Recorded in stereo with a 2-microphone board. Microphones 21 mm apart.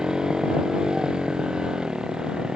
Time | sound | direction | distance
0.0 | a motorcycle | 35° right (ahead or behind) | ?